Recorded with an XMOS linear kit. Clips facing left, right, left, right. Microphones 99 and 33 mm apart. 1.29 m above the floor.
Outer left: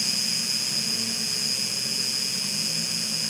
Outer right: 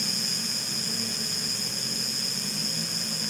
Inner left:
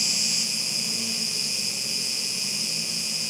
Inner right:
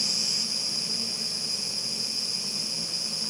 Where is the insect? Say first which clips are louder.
Even, inner left 2 dB; 70° left (ahead or behind), 0.7 m.